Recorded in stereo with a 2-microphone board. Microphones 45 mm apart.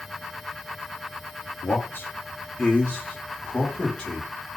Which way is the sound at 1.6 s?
55° left (ahead or behind).